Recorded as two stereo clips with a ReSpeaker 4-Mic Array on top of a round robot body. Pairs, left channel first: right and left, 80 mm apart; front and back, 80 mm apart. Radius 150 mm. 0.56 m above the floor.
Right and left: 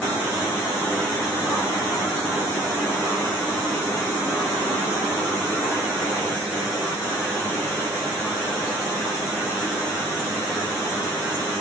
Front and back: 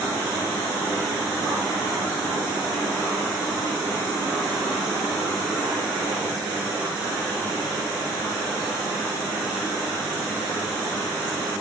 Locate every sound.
Only background noise.